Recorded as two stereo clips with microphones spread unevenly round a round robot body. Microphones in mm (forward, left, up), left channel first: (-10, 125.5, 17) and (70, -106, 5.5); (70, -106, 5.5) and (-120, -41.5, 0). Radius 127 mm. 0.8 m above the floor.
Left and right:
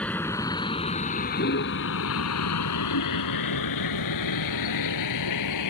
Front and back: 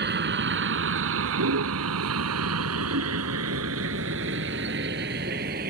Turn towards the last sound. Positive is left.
turn(degrees=105)